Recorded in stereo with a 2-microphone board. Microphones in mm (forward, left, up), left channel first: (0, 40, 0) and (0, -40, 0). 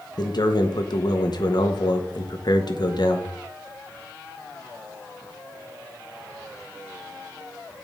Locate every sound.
0.2 s a man speaking: 60° left (ahead or behind), 1.1 m